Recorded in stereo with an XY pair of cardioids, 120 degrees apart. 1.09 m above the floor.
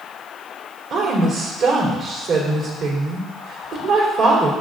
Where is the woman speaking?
55° right, 3 m.